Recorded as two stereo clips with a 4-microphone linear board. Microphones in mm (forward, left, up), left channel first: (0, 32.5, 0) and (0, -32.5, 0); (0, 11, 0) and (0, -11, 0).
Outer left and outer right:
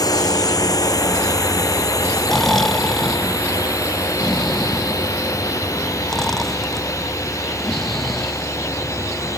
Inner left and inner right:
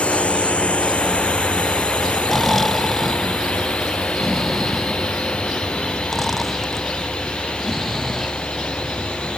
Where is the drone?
70° left (ahead or behind); by 9.4 s 50° left (ahead or behind).